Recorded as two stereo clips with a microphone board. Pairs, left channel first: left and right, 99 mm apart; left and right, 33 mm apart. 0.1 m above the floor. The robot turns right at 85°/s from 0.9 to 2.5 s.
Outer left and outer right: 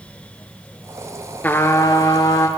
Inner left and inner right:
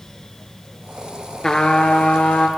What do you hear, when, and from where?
1.4 s a trumpet: 30° left, 0.5 m; by 2.5 s 120° left, 0.5 m